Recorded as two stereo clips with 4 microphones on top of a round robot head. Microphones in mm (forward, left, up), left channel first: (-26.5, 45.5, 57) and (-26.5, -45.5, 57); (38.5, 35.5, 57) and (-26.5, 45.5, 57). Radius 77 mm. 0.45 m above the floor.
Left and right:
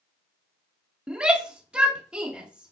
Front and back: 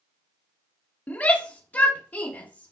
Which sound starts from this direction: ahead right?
A shout, at 1.1 s.